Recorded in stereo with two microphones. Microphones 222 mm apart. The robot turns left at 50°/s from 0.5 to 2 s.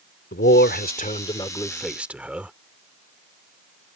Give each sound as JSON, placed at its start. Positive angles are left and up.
{"t": 0.3, "sound": "a man speaking", "azimuth_deg": 70}